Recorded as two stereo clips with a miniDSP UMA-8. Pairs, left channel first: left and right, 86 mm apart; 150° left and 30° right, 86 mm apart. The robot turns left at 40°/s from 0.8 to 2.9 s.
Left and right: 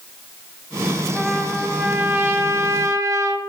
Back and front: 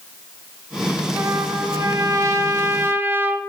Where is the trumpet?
Straight ahead, 0.9 m; by 3.4 s 70° right, 0.9 m.